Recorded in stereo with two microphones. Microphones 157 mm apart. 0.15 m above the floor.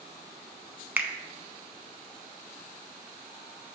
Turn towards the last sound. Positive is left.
turn(degrees=-10)  # may be behind; listen again after turning